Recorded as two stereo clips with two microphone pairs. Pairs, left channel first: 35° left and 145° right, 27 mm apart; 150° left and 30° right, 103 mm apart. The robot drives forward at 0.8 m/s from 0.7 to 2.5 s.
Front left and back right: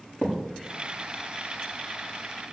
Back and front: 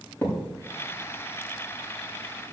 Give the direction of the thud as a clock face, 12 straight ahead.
9 o'clock.